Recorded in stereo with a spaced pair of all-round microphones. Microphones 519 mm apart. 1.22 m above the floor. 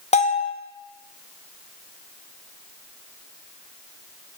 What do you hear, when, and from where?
0.1 s a bell: 15° left (ahead or behind), 0.6 m